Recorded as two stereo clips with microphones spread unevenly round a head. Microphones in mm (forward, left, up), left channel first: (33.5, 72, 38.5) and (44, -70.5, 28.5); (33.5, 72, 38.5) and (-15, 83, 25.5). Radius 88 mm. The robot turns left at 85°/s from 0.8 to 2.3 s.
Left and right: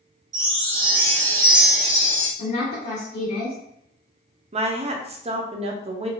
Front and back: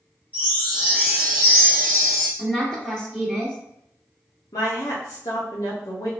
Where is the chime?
30° right, 1.2 m; by 2.3 s 155° right, 1.2 m.